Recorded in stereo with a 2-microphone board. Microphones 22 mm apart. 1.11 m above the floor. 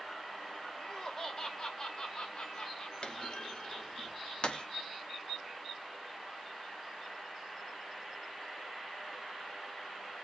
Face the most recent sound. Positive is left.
turn(degrees=50)  # may be behind; listen again after turning